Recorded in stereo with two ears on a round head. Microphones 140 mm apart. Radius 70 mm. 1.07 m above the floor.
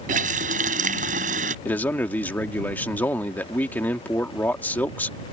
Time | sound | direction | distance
0.1 | a running tap | 50° right (ahead or behind) | ?
1.6 | a man speaking | 10° left (ahead or behind) | ?